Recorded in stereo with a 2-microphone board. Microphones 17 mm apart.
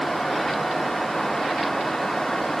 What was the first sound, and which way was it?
Only background noise.